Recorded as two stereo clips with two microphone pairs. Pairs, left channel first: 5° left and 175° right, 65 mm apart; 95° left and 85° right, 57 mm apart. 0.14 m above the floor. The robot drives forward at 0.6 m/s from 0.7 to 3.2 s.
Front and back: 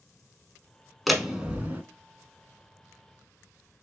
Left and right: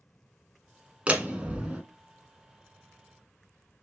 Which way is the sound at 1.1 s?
80° right.